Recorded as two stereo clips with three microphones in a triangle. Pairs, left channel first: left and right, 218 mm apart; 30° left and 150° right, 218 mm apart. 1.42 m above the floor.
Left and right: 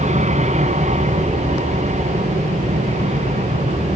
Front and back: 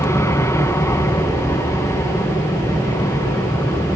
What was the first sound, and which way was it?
An aircraft, 45° right.